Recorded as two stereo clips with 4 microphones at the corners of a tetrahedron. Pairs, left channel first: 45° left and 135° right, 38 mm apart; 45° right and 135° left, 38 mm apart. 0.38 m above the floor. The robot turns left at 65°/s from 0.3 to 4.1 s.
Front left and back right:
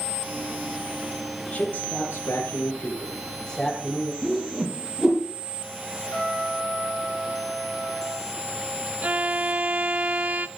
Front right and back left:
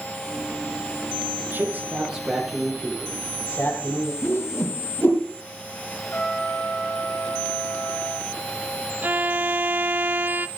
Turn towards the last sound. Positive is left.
turn(degrees=170)